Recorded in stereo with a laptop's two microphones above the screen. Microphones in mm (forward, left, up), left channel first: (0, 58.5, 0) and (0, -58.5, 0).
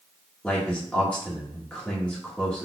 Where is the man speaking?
10° left (ahead or behind), 1.3 m.